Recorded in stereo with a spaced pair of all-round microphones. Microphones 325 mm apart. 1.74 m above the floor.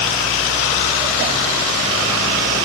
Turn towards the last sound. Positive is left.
No sound to turn to.